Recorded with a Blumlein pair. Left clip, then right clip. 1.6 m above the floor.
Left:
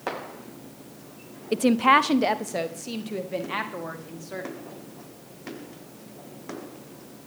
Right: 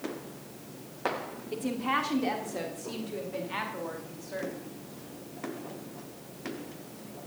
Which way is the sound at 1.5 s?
35° left.